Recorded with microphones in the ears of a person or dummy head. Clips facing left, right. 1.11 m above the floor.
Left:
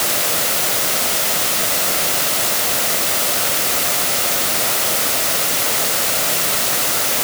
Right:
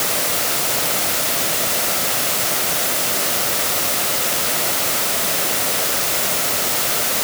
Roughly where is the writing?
I don't hear writing.